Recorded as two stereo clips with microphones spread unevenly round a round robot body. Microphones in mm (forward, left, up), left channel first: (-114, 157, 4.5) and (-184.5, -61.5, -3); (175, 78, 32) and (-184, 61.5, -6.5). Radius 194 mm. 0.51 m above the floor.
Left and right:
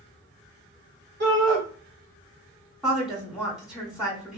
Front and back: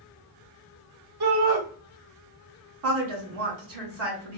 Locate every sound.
1.2 s a shout: 145° right, 1.8 m
2.8 s a woman speaking: 165° left, 1.8 m